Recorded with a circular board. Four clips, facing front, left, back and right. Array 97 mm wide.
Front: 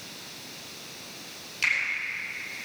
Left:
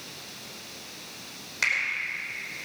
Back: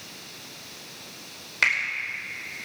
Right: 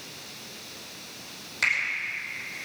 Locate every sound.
1.6 s a finger snap: 170° left, 5 m